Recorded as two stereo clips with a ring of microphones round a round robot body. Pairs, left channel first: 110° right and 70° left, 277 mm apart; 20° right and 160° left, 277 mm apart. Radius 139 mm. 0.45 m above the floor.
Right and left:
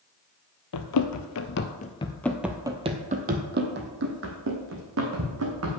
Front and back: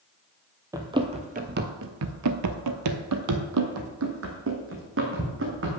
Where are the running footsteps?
125° right, 0.9 m; by 5.8 s 105° left, 2 m.